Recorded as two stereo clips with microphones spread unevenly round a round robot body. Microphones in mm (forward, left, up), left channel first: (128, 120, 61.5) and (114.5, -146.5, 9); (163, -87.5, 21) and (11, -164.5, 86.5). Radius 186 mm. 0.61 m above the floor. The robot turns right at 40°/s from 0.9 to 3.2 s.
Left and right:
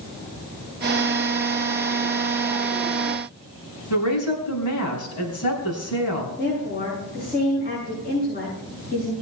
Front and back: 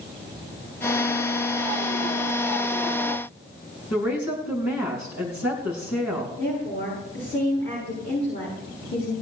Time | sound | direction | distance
3.9 | a woman speaking | 80° left | 4.5 m
6.4 | a woman speaking | 35° left | 8 m